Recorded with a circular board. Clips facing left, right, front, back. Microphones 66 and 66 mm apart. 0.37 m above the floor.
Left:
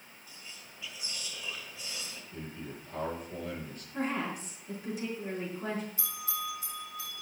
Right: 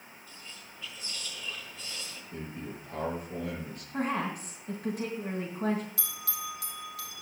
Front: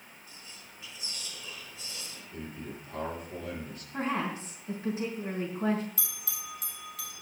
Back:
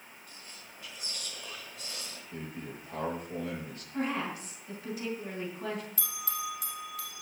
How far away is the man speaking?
About 7 m.